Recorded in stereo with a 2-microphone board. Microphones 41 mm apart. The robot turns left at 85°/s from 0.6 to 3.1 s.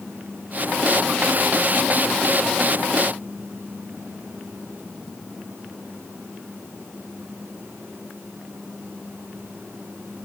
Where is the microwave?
I don't hear a microwave.